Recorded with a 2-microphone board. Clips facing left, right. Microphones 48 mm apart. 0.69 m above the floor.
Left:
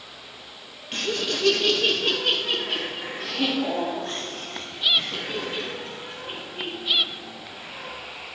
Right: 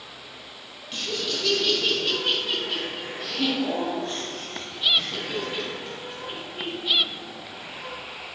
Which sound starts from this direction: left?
Laughter, at 0.9 s.